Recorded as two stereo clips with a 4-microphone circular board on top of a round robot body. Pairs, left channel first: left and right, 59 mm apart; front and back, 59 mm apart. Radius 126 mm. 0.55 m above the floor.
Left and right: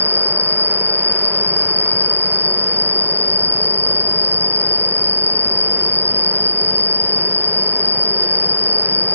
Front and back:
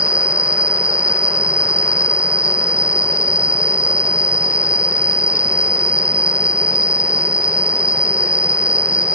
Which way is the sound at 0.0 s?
120° left.